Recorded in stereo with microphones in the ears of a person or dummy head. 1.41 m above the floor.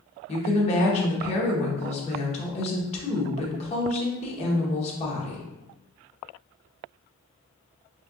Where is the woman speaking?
35° left (ahead or behind), 1.2 m.